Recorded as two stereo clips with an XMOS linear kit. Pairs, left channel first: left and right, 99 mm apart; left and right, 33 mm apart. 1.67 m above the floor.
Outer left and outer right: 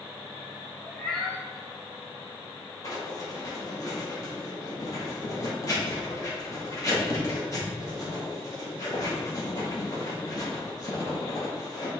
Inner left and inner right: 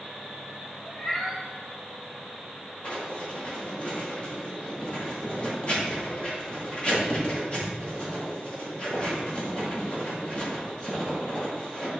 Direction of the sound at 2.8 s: 35° left (ahead or behind).